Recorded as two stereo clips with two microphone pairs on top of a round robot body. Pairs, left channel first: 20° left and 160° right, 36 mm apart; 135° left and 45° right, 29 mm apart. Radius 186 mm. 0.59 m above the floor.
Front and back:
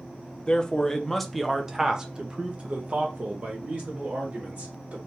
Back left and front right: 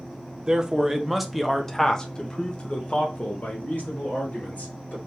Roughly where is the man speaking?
Ahead.